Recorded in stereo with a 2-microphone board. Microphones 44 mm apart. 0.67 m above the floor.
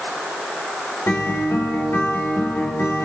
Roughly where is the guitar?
Left.